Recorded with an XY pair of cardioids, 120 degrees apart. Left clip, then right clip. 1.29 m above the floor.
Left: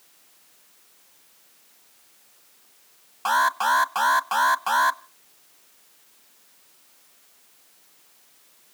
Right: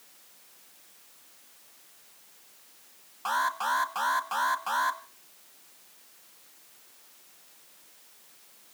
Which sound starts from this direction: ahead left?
An alarm, at 3.2 s.